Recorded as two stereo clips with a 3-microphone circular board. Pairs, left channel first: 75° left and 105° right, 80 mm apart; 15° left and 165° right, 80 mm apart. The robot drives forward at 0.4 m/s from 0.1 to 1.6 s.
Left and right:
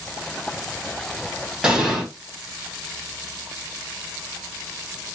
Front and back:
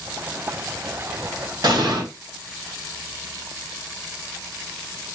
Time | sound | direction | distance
1.6 | an explosion | 175° left | 1.8 m